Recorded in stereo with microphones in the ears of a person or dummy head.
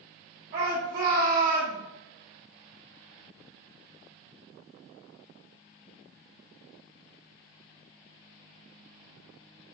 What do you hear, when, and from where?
0.5 s a shout: 65° right (ahead or behind), 1.4 m